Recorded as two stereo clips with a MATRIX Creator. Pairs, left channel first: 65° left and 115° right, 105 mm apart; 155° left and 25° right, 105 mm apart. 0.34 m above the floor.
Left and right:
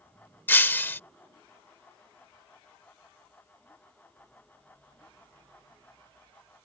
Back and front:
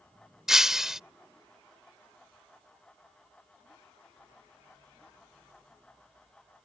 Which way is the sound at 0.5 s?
55° left.